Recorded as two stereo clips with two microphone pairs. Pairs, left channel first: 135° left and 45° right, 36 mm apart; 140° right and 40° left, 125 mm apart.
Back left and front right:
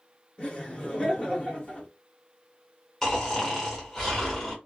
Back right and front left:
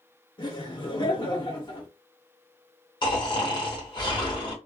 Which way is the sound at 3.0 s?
155° right.